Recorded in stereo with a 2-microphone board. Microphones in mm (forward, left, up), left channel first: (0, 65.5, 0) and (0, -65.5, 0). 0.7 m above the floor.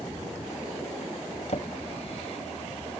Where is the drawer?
55° left (ahead or behind).